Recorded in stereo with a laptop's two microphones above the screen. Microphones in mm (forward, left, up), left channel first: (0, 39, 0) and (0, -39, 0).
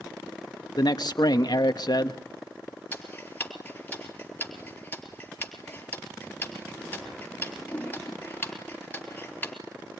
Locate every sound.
0.8 s a man speaking: 60° left (ahead or behind), 1.1 m
2.9 s ticking: 20° left (ahead or behind), 3.5 m